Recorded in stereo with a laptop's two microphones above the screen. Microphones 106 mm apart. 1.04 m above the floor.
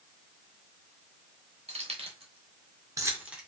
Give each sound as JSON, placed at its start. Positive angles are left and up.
{"t": 1.7, "sound": "keys jangling", "side_deg": -75, "distance_m": 0.9}